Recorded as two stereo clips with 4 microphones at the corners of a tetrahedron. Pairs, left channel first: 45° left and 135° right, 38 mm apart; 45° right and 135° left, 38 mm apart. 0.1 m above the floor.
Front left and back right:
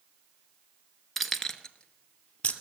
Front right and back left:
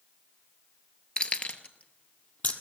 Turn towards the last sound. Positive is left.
turn(degrees=-15)